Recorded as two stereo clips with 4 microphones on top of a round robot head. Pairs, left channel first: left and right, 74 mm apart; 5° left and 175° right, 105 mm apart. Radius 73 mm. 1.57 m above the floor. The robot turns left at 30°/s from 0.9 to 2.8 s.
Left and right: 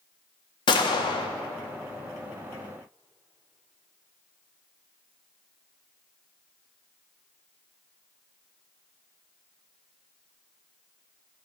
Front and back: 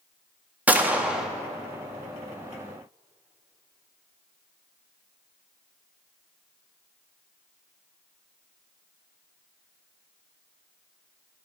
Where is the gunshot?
105° left, 0.9 m; by 1.3 s 95° left, 0.9 m.